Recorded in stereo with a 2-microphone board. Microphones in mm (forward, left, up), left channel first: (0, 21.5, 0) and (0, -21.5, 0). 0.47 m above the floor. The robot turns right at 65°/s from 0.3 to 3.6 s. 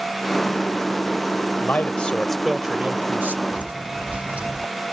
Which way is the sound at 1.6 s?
130° left.